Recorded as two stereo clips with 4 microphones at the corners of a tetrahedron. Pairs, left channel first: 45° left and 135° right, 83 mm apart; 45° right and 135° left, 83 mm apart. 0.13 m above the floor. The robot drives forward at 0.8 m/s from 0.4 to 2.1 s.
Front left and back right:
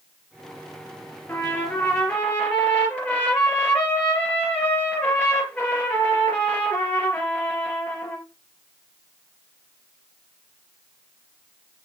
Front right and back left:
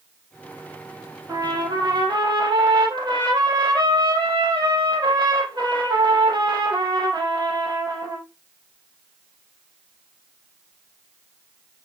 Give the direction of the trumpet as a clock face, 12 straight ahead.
9 o'clock.